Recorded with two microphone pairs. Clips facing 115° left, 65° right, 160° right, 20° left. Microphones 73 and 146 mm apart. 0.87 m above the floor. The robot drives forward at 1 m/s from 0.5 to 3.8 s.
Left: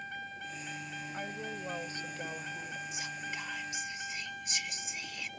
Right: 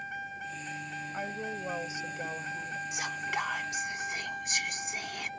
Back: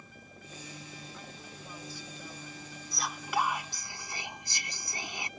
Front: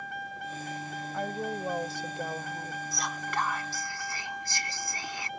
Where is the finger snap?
I don't hear a finger snap.